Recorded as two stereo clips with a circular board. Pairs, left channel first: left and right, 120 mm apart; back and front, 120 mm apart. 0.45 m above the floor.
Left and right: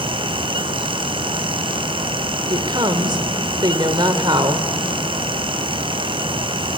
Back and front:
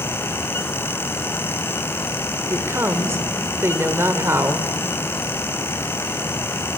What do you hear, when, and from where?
2.5 s a woman speaking: 60° right, 1.6 m